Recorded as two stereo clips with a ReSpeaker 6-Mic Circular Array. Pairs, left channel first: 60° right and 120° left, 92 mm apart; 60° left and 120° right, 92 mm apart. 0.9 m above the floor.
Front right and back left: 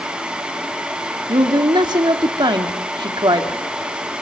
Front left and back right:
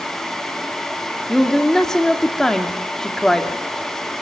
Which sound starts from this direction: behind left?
A woman speaking, at 1.3 s.